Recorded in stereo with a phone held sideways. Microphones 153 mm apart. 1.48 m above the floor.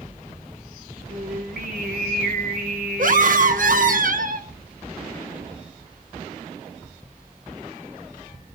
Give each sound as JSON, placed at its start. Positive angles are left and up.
{"t": 1.1, "sound": "singing", "side_deg": -75, "distance_m": 3.0}
{"t": 3.0, "sound": "a scream", "side_deg": -60, "distance_m": 0.9}